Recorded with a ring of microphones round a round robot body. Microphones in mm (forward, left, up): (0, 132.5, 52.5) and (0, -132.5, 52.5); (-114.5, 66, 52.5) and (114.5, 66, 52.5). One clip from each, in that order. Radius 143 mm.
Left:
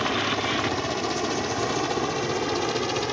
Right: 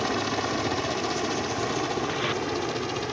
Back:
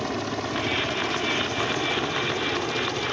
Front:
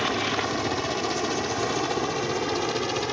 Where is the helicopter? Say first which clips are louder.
Left 2 dB, front 4 dB; 20° right; by 3.1 s 35° left.